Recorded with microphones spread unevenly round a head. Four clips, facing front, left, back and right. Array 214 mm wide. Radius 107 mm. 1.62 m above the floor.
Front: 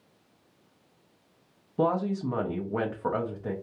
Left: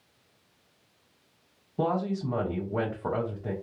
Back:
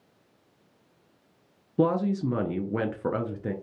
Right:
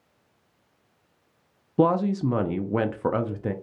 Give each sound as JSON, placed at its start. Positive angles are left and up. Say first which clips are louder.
{"t": 1.8, "sound": "a woman speaking", "louder": "right 7 dB, back 2 dB", "azimuth_deg": -120, "distance_m": 0.5}